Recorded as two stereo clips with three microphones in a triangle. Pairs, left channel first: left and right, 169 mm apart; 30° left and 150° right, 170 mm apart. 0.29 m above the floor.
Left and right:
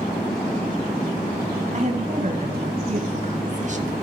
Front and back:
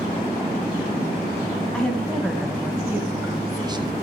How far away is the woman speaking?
About 2 m.